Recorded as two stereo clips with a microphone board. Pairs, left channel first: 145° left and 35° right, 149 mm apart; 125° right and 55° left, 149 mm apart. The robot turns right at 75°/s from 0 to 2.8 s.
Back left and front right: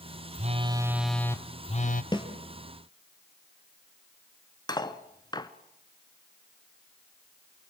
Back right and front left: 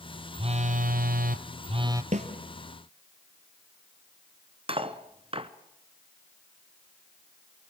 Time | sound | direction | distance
0.3 | a phone buzzing | straight ahead | 1.0 m
2.1 | a snare drum | 85° left | 3 m
4.7 | cutlery clinking | 95° left | 1.1 m